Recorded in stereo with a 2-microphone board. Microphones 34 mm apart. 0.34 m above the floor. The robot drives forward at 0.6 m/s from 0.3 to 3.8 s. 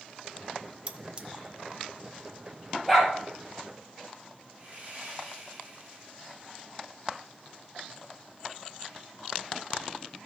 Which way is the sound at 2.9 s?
5° right (ahead or behind).